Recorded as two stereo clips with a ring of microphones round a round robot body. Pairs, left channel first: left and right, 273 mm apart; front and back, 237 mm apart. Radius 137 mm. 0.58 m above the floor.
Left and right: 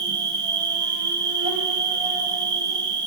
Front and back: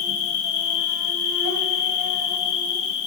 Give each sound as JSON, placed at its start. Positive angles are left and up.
{"t": 0.0, "sound": "an insect", "azimuth_deg": -15, "distance_m": 1.3}